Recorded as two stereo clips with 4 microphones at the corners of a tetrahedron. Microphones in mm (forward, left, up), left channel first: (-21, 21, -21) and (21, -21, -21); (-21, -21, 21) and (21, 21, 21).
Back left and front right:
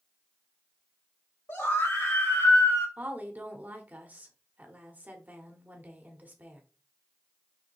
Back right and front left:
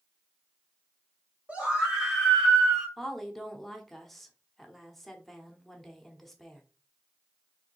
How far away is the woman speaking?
About 1.0 m.